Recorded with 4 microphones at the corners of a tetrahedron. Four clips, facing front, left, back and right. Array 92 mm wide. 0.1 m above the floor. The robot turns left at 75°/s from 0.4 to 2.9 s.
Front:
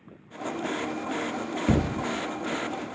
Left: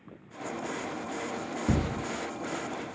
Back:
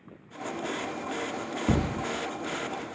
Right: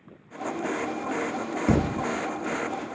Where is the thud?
80° right, 0.5 m; by 2.1 s 110° right, 0.5 m.